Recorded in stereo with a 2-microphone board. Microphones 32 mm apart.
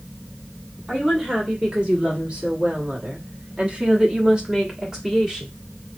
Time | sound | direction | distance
0.9 | a woman speaking | 25° right (ahead or behind) | 1.8 m